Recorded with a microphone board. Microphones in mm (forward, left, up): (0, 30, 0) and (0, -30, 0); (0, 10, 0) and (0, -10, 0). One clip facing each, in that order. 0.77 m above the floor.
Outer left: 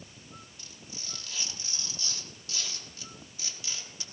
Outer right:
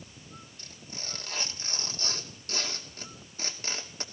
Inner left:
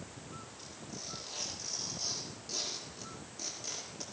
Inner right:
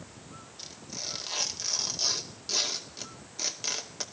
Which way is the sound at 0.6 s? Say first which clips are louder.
Outer right 3 dB, inner right 10 dB; 45° right (ahead or behind).